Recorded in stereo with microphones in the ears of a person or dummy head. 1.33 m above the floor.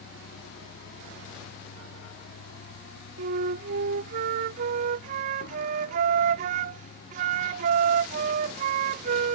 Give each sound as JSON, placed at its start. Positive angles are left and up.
{"t": 0.0, "sound": "a vehicle", "side_deg": 70}
{"t": 3.2, "sound": "a flute", "side_deg": -50}